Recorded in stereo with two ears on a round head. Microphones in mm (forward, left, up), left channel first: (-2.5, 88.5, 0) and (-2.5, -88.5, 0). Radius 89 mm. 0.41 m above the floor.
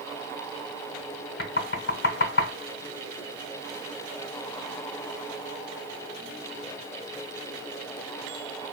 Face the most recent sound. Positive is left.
turn(degrees=60)  # may be behind; listen again after turning